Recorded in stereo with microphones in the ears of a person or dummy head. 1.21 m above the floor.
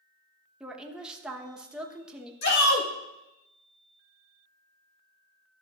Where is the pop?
I don't hear a pop.